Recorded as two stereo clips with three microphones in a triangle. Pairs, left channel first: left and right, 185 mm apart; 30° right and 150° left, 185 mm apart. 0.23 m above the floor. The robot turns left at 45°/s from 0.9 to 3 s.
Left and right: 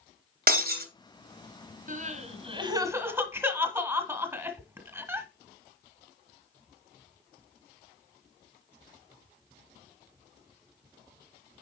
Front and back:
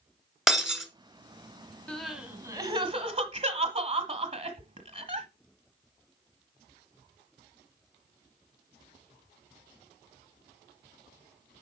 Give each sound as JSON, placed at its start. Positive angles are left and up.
{"t": 0.5, "sound": "breaking glass", "azimuth_deg": -120, "distance_m": 1.2}
{"t": 1.9, "sound": "crying", "azimuth_deg": -110, "distance_m": 1.4}